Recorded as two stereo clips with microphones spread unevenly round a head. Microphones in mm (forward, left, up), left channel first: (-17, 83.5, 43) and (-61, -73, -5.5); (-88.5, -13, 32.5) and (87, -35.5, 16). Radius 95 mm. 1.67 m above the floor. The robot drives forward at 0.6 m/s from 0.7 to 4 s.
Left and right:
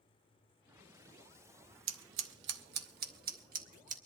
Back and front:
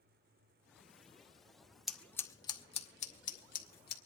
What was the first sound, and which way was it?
Scissors, 95° right.